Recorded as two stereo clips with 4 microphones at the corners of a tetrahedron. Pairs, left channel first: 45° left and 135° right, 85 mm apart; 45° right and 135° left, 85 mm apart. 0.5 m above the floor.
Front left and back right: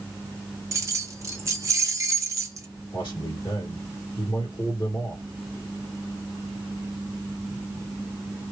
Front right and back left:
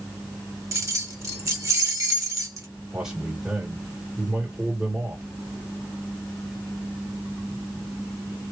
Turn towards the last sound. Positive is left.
turn(degrees=55)